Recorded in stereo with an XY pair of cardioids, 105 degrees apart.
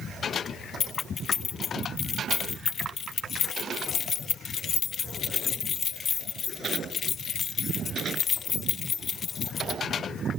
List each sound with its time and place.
0.8 s keys jangling: 50° left, 0.8 m